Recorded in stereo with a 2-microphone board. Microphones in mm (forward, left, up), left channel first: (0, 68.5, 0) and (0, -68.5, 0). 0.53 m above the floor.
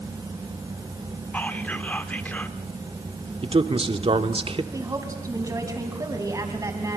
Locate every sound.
1.3 s whispering: 10° left (ahead or behind), 1.0 m
3.4 s a man speaking: 40° right (ahead or behind), 1.0 m
4.7 s a woman speaking: 25° right (ahead or behind), 3.5 m